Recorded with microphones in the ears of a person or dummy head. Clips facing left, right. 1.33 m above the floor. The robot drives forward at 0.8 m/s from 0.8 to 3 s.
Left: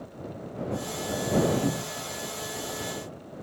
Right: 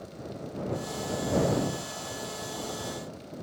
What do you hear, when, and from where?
1.6 s a cupboard door: 70° left (ahead or behind), 0.7 m; by 2.1 s 55° left (ahead or behind), 0.8 m